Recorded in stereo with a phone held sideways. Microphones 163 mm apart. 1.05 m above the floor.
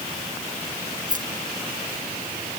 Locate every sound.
1.1 s keys jangling: 55° right (ahead or behind); by 2.6 s 60° right (ahead or behind)